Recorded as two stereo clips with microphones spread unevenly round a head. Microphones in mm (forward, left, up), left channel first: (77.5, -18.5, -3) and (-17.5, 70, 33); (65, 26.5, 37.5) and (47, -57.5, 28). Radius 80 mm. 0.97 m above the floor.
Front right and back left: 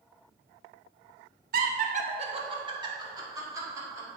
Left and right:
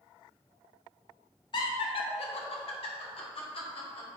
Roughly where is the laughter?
Behind left.